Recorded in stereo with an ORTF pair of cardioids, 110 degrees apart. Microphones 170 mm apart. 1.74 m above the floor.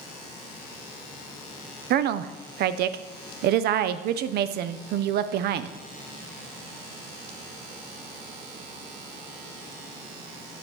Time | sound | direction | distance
1.9 | a woman speaking | 65° right | 0.6 m